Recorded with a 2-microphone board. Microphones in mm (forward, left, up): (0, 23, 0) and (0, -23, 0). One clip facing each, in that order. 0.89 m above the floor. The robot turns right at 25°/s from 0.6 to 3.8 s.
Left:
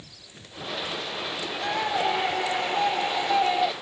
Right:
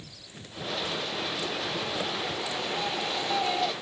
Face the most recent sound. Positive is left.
turn(degrees=160)